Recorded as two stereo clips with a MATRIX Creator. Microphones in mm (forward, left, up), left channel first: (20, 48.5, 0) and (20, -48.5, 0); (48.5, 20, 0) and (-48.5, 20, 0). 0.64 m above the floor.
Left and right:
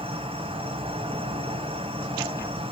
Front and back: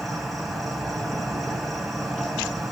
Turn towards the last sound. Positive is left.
turn(degrees=-90)